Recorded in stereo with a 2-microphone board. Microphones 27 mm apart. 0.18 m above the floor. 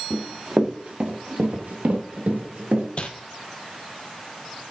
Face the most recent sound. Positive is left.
turn(degrees=45)  # may be behind; listen again after turning